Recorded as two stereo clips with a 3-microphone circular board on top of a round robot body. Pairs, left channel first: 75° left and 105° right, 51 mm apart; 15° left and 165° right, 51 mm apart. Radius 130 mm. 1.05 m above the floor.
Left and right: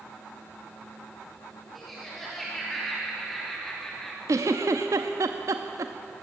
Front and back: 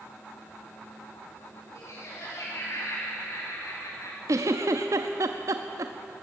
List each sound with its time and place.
1.8 s laughter: 15° right, 4 m; by 4.2 s 5° right, 2.5 m
4.3 s a giggle: 135° right, 0.6 m